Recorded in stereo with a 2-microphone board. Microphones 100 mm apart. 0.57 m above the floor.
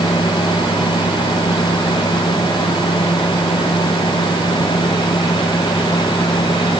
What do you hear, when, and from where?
Only background noise.